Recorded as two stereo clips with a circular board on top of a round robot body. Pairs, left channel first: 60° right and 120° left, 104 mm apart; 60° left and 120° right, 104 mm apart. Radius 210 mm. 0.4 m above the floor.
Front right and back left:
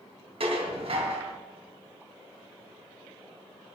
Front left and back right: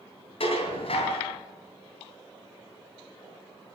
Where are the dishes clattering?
90° left, 3 m.